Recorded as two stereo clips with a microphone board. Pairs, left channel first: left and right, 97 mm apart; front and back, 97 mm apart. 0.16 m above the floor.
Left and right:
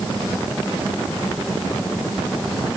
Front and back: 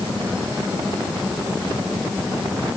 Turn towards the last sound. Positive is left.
No sound to turn to.